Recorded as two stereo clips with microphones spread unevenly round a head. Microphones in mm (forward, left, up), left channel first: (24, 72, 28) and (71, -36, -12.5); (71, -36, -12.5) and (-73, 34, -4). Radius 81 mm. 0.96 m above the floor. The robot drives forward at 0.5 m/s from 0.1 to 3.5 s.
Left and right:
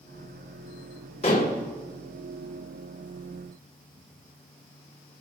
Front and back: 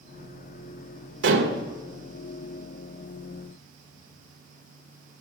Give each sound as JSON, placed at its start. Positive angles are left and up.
{"t": 1.2, "sound": "dishes clattering", "azimuth_deg": 170, "distance_m": 2.5}